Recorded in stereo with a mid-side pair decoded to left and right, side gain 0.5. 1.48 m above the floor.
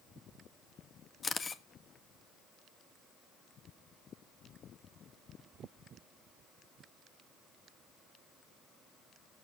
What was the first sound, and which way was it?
A camera shutter, 35° left.